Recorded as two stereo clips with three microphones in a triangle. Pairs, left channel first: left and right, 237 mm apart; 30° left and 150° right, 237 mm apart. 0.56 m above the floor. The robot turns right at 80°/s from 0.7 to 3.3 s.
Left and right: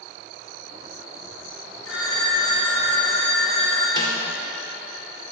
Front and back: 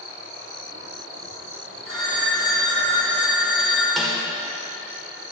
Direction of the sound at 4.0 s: 120° left.